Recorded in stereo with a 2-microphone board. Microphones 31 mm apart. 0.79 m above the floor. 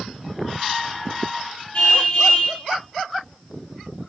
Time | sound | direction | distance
1.7 | a car horn | 45° left (ahead or behind) | 5.5 m